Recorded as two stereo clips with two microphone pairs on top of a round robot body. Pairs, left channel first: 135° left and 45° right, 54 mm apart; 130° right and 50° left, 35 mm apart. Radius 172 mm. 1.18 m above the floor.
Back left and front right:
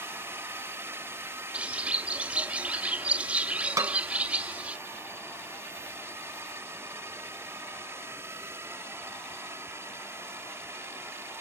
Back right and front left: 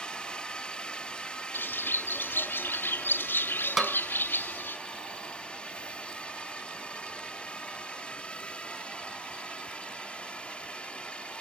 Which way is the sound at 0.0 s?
70° right.